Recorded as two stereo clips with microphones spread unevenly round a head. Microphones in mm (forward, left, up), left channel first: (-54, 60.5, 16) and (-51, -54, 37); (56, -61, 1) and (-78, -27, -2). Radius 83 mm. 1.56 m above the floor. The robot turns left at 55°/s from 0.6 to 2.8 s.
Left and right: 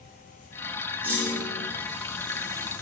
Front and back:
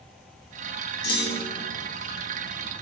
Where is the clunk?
10° right, 1.2 m; by 1.7 s 45° right, 1.2 m.